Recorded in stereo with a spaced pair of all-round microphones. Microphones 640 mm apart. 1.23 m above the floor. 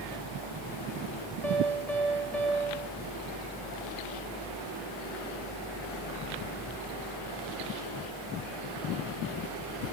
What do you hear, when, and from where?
0.0 s a fan: 55° left (ahead or behind), 3 m
1.4 s a piano: 85° left, 6.5 m